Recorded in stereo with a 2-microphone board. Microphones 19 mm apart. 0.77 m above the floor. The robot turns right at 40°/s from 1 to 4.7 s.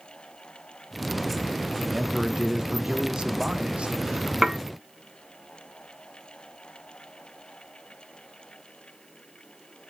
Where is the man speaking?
175° right, 1.2 m; by 4.3 s 75° right, 1.2 m.